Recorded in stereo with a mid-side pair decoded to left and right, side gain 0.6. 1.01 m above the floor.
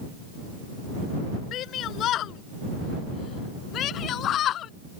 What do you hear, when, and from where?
1.5 s a shout: 55° left; by 4.7 s 50° left